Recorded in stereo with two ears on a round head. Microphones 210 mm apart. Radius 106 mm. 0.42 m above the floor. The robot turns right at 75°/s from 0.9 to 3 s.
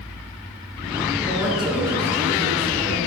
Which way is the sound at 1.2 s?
175° left.